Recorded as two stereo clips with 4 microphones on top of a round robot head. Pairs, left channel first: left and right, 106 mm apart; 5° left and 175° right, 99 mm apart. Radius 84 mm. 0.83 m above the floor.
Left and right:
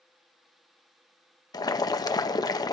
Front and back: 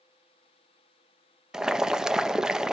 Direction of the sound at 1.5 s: 105° left.